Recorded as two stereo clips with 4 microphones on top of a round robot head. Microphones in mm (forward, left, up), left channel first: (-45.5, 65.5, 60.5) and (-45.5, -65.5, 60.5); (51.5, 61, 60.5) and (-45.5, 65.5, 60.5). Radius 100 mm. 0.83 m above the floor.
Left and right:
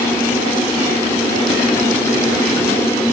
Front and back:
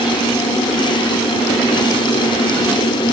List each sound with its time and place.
Only background noise.